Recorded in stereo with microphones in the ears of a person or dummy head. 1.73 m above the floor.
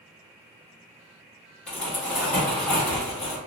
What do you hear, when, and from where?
1.7 s crumpling: 5° left (ahead or behind), 1.3 m